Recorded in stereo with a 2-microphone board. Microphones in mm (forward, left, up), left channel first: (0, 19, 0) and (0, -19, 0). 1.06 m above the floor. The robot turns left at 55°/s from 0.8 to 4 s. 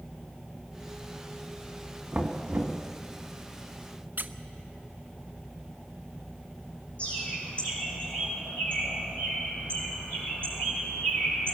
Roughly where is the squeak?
Right.